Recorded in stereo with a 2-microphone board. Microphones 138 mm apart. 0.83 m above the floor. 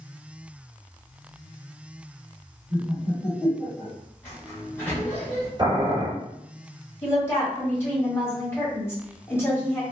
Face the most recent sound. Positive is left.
turn(degrees=20)  # may be behind; listen again after turning